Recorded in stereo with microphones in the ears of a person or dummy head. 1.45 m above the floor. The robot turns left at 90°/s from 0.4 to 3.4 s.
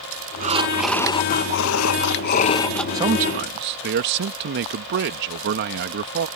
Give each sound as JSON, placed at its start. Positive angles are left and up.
{"t": 0.4, "sound": "breathing", "azimuth_deg": -140}
{"t": 2.9, "sound": "a man speaking", "azimuth_deg": -20}